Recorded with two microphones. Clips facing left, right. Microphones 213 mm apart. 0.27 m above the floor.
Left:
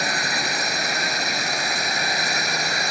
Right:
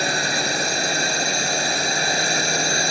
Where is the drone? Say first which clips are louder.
Right 3 dB; 30° right (ahead or behind).